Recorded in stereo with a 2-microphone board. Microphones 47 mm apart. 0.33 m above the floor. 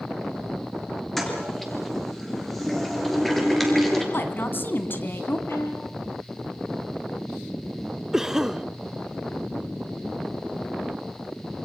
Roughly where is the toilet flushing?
Centre.